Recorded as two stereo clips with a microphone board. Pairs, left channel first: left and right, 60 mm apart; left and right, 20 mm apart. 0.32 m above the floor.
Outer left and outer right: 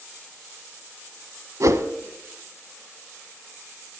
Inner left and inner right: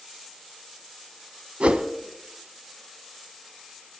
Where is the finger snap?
I don't hear a finger snap.